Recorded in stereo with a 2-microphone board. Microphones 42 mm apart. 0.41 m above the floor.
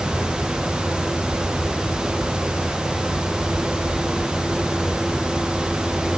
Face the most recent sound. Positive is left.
No sound to turn to.